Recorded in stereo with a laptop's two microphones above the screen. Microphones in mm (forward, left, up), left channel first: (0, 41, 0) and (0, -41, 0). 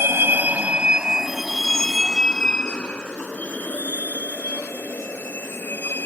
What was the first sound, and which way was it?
A vehicle, 35° right (ahead or behind).